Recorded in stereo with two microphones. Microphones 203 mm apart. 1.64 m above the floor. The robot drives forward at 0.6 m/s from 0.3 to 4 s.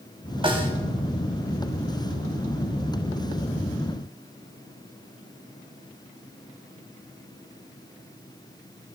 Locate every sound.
0.4 s a snare drum: 25° right (ahead or behind), 5 m